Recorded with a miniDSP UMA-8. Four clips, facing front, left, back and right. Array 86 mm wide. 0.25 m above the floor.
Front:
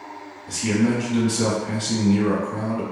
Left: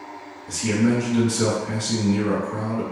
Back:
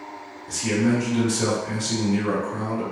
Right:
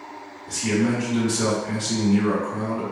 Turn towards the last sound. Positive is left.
turn(degrees=-30)